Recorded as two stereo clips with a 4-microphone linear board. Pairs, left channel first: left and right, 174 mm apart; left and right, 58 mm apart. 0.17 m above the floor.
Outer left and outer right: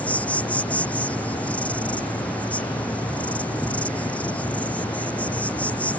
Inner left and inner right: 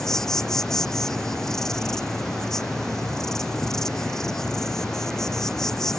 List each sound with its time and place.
0.0 s an insect: 10° left (ahead or behind)